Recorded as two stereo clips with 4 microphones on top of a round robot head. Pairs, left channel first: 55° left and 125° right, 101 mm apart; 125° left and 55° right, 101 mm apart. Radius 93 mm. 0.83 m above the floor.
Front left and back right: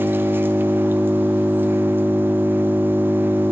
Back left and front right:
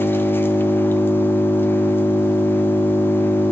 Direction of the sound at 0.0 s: Straight behind.